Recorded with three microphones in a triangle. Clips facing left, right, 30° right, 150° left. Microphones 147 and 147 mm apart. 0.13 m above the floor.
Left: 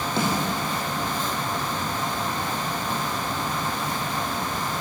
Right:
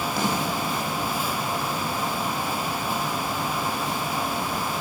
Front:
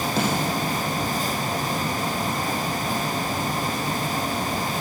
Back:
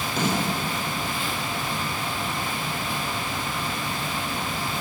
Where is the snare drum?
25° left, 5.5 m.